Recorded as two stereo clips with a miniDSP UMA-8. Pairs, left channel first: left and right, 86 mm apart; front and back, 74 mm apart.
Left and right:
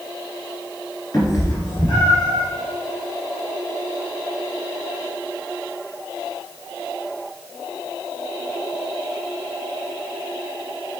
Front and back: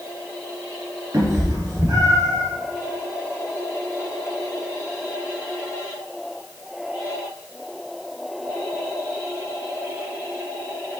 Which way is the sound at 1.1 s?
140° left.